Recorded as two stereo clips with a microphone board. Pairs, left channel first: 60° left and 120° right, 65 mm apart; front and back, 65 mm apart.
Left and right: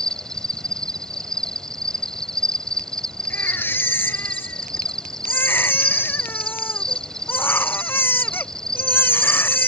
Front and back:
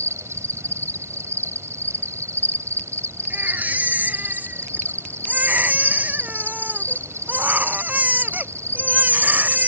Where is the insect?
140° left.